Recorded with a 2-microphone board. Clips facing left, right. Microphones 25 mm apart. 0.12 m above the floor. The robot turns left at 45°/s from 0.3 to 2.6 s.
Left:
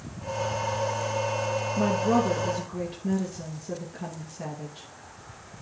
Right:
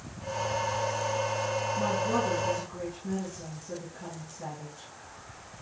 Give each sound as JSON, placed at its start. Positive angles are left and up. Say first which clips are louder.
{"t": 1.8, "sound": "a woman speaking", "louder": "left 6 dB", "azimuth_deg": 100, "distance_m": 2.5}